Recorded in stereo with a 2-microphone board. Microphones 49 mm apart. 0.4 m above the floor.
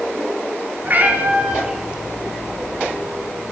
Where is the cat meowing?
40° right (ahead or behind), 2 m; by 3.5 s 60° left (ahead or behind), 2.5 m.